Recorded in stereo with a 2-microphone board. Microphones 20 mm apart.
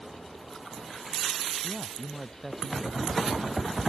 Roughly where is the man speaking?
Centre.